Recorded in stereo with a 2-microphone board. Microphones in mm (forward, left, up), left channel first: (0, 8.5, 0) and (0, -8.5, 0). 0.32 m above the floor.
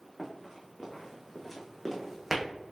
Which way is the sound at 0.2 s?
20° left (ahead or behind).